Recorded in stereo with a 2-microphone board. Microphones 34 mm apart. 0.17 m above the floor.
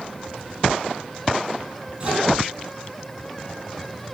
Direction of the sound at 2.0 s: 30° right (ahead or behind).